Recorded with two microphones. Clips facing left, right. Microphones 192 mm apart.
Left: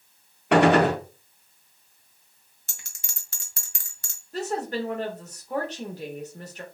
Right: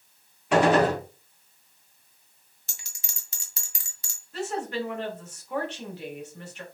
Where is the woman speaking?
40° left (ahead or behind), 0.8 m.